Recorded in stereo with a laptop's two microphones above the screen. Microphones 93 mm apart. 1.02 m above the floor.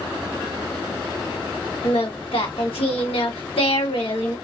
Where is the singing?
80° left, 0.9 m.